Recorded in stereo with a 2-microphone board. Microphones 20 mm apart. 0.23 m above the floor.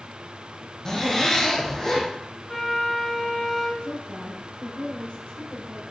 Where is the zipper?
30° left (ahead or behind), 3 m.